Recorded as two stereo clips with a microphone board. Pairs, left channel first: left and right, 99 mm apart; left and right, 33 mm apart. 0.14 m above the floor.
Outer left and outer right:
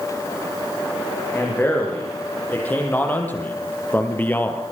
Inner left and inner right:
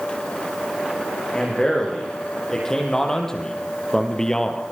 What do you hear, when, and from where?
1.3 s a man speaking: 15° left (ahead or behind), 8.5 m; by 4.6 s 20° left (ahead or behind), 3.5 m